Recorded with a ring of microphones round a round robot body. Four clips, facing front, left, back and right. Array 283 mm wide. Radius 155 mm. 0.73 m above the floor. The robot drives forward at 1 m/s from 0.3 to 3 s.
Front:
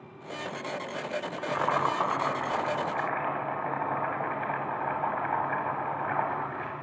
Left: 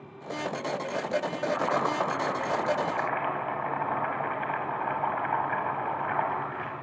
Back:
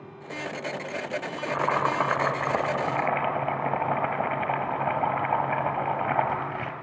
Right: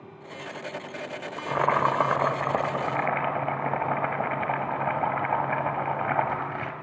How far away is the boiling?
About 1.1 m.